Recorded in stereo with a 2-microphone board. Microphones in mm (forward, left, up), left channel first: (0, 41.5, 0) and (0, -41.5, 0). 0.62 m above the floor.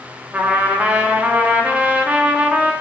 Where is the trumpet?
15° right (ahead or behind), 1.2 m.